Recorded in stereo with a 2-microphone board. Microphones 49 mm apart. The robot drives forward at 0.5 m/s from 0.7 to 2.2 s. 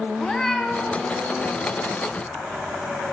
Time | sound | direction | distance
0.2 | a cat meowing | 10° left (ahead or behind) | 0.8 m